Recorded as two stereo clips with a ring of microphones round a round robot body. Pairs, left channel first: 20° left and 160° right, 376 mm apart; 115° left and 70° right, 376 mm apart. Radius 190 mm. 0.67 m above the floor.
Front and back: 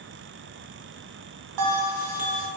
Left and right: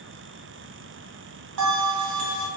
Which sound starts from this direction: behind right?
A bell, at 1.6 s.